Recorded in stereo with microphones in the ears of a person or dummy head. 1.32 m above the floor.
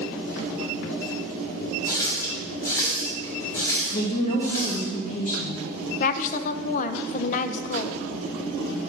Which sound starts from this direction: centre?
A running tap, at 1.9 s.